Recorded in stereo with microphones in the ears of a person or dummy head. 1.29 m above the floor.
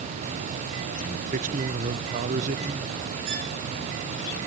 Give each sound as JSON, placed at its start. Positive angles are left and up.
{"t": 1.0, "sound": "a man speaking", "side_deg": -45, "distance_m": 1.0}
{"t": 3.3, "sound": "a violin", "side_deg": -50, "distance_m": 2.0}